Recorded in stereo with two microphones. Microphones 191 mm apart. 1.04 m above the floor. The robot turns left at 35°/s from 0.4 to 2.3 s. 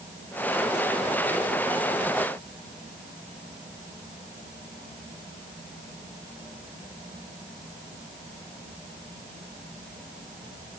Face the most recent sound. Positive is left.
No sound to turn to.